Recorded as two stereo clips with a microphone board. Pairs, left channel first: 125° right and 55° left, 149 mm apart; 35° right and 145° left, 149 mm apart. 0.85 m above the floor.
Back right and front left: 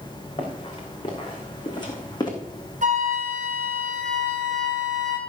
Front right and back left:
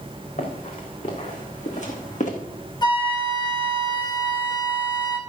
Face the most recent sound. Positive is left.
turn(degrees=25)